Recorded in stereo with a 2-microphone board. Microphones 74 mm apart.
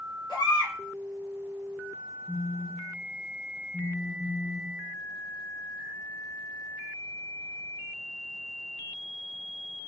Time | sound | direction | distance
0.3 | a baby crying | 60° left (ahead or behind) | 1.4 m
2.3 | a phone buzzing | 10° left (ahead or behind) | 1.2 m